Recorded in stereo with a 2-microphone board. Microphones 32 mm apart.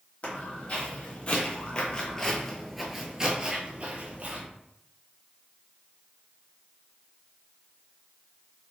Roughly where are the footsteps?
Left.